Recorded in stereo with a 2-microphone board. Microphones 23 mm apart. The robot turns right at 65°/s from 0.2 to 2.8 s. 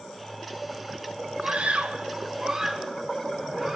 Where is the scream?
75° right (ahead or behind), 2.5 m; by 3.8 s 5° right (ahead or behind), 2.5 m.